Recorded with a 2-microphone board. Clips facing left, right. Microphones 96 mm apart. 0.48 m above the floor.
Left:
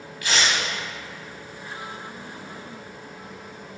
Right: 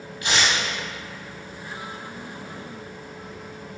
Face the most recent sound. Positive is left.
turn(degrees=-25)  # may be behind; listen again after turning